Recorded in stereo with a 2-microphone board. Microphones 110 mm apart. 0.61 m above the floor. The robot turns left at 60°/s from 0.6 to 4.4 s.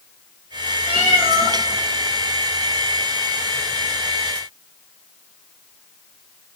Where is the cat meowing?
60° right, 5.5 m; by 1.6 s 100° right, 5.5 m.